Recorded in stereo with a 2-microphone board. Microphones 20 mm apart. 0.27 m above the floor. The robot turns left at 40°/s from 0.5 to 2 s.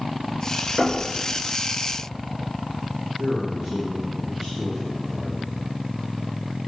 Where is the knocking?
65° right (ahead or behind), 3 m; by 1.0 s 70° right (ahead or behind), 3 m.